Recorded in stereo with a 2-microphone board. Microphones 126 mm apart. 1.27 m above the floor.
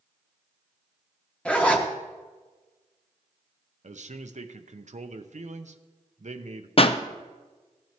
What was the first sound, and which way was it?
A zipper, 10° left (ahead or behind).